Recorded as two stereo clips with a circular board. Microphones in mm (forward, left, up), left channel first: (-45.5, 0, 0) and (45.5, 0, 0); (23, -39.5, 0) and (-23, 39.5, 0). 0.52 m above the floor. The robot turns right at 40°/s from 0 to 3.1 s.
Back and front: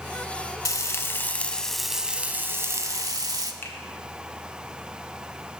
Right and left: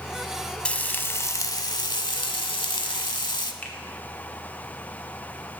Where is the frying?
135° right, 0.6 m; by 3.5 s 40° right, 0.6 m.